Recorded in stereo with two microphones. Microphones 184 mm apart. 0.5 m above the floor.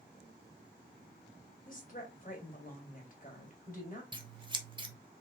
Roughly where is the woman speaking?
Left.